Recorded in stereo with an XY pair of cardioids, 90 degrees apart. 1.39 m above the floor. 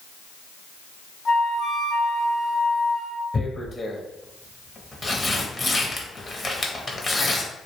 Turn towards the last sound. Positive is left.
turn(degrees=30)